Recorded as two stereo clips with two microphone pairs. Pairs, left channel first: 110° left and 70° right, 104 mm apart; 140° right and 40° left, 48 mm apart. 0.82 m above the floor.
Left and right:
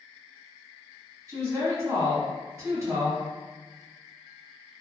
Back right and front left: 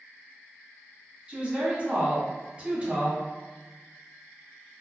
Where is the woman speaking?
20° right, 1.2 m.